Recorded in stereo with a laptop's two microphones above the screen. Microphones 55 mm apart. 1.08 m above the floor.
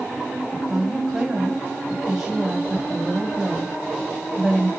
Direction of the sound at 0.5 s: 5° right (ahead or behind).